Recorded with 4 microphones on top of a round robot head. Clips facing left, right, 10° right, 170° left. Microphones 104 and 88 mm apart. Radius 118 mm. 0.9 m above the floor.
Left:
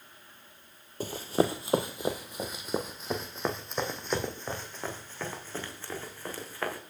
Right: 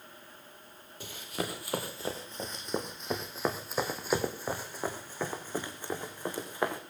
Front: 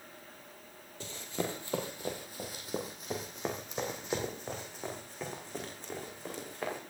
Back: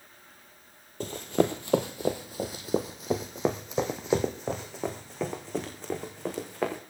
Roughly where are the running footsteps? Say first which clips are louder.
Left 10 dB, back 11 dB; behind left.